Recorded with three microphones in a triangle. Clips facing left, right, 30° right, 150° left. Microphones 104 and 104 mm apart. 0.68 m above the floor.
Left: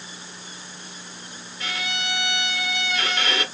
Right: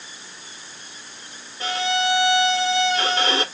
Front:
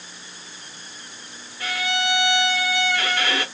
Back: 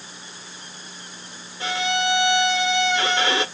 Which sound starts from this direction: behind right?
A violin, at 1.6 s.